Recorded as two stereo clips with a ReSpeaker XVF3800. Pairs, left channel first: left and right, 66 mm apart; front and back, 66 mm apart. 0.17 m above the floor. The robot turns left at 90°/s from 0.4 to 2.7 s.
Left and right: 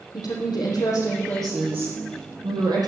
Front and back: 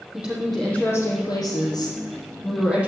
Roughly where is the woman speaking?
Left.